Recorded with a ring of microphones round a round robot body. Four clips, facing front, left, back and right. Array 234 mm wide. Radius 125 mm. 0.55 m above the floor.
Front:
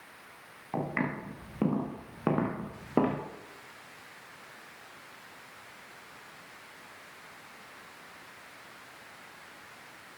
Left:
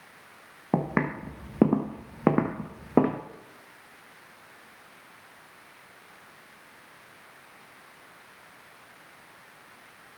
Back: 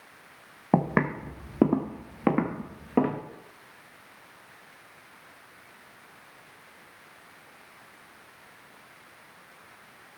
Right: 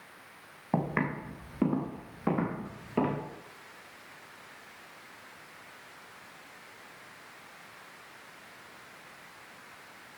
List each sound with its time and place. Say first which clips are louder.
0.7 s footsteps: left 4 dB, back 8 dB; 160° left, 1.5 m; by 3.2 s 90° left, 2.5 m